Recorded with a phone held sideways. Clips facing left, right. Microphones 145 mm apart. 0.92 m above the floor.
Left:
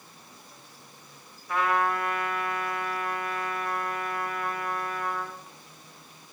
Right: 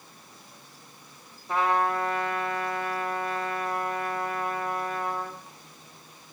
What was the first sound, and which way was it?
A trumpet, 30° right (ahead or behind).